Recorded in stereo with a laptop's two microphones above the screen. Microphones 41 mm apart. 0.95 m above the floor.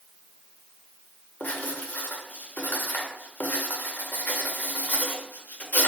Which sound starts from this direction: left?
Writing, at 1.4 s.